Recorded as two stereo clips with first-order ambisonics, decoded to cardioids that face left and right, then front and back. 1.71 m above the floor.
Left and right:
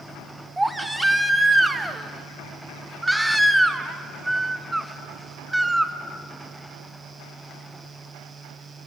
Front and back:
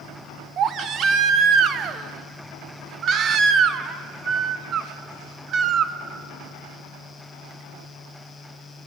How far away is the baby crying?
About 1.0 m.